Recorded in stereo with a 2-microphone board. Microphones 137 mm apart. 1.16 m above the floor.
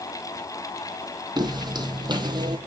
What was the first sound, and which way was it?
Footsteps, 30° right (ahead or behind).